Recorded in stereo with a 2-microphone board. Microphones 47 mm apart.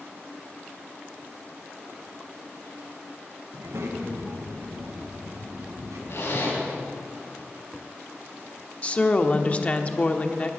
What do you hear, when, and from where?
3.5 s a child speaking: 75° right (ahead or behind), 2.5 m; by 6.0 s 80° right, 5 m
6.1 s a zipper: 70° left (ahead or behind), 4.5 m
8.8 s a woman speaking: 30° left (ahead or behind), 1.0 m